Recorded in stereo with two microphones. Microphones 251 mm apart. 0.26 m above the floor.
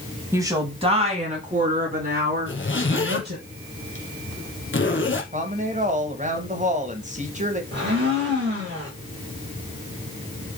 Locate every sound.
0.3 s a woman speaking: 10° right (ahead or behind), 1.5 m; by 3.4 s 40° right (ahead or behind), 4.5 m
2.5 s a zipper: 50° left (ahead or behind), 1.4 m
5.3 s a woman speaking: 30° right (ahead or behind), 1.4 m
7.7 s a blender: 45° right (ahead or behind), 4.5 m